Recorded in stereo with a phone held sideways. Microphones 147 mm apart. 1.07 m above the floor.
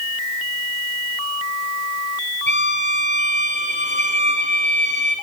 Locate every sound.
2.5 s a violin: 60° right (ahead or behind), 5.5 m